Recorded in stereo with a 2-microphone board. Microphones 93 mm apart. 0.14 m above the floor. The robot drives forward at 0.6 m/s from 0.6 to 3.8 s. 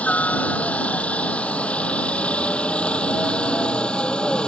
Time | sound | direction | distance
0.0 | a helicopter | 15° left (ahead or behind) | ?